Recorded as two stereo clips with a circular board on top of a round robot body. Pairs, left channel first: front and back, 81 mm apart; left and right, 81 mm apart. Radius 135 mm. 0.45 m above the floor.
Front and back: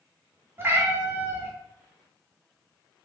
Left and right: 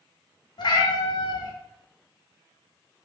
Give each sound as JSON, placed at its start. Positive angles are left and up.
{"t": 0.6, "sound": "a cat meowing", "azimuth_deg": 120, "distance_m": 0.9}